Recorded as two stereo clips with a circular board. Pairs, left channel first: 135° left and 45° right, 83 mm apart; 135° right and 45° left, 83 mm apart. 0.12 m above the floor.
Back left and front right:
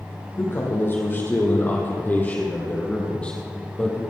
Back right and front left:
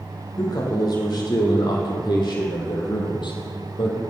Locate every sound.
0.4 s a man speaking: 170° right, 5.5 m; by 4.0 s 145° right, 4 m